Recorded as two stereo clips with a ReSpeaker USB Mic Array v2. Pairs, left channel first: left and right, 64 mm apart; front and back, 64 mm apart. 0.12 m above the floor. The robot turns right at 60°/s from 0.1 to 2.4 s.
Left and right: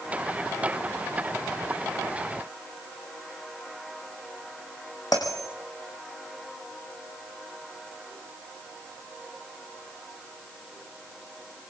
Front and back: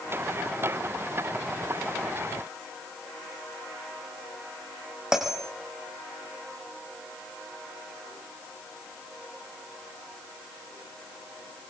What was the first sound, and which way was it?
A bell, 100° left.